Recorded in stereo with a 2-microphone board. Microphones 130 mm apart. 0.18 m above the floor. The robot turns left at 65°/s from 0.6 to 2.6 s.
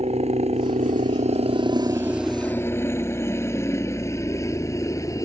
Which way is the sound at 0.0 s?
55° right (ahead or behind).